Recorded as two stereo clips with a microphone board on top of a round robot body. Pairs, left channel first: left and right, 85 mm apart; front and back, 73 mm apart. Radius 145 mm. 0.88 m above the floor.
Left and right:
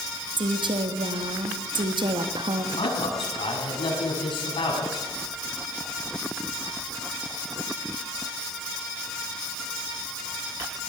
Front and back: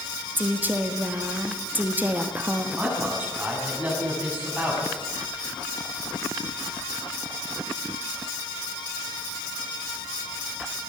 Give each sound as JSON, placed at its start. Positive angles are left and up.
{"t": 0.4, "sound": "a woman speaking", "azimuth_deg": -115, "distance_m": 1.4}
{"t": 2.8, "sound": "a man speaking", "azimuth_deg": 110, "distance_m": 8.0}